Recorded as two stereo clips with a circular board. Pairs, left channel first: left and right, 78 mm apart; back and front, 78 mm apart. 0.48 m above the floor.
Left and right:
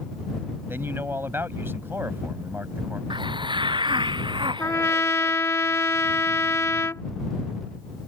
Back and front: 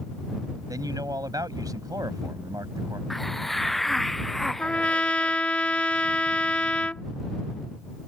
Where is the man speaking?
30° right.